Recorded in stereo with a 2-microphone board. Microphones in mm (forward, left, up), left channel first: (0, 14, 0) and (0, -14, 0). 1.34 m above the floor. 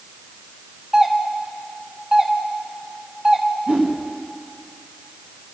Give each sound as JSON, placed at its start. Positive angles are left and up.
{"t": 0.9, "sound": "a doorbell", "side_deg": -35, "distance_m": 1.4}
{"t": 3.7, "sound": "a whoosh", "side_deg": -75, "distance_m": 2.5}